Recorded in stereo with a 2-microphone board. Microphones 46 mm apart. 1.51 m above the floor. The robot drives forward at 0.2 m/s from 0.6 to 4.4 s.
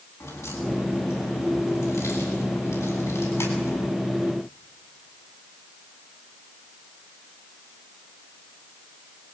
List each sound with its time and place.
0.2 s a crack: 85° left, 8.5 m; by 3.9 s 80° left, 8.5 m